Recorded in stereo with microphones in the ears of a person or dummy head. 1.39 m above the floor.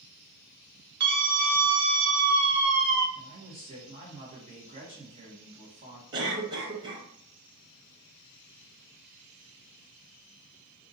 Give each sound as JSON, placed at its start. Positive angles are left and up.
{"t": 1.0, "sound": "a scream", "side_deg": -60, "distance_m": 1.2}
{"t": 3.1, "sound": "a man speaking", "side_deg": -45, "distance_m": 1.4}
{"t": 6.1, "sound": "a cough", "side_deg": -25, "distance_m": 1.0}